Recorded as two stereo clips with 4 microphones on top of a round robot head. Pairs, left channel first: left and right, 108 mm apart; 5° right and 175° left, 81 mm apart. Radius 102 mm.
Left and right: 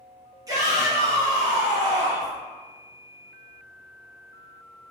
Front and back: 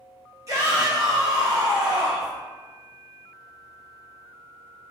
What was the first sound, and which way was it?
A shout, 140° right.